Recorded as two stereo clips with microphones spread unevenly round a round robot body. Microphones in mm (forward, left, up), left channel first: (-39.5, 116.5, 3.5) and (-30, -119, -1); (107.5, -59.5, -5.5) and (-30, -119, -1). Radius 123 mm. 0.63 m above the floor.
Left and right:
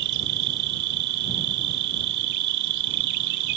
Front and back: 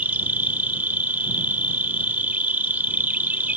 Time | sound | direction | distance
0.0 | an insect | 75° right | ?